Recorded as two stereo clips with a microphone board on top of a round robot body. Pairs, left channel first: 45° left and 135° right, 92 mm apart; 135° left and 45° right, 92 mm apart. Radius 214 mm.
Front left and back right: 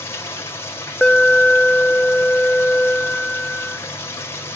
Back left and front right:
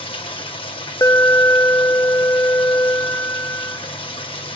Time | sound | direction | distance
0.0 | running water | 110° left | 2.0 m
1.0 | an alarm | 125° left | 0.6 m